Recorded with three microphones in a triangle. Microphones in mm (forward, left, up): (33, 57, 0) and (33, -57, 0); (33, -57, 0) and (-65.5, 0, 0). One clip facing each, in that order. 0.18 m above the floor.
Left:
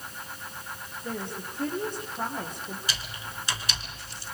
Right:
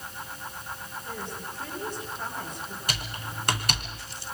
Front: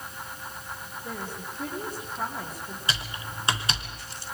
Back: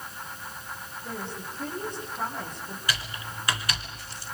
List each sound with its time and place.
1.0 s a woman speaking: 55° left, 6.5 m
2.9 s typing on a keyboard: 85° right, 2.5 m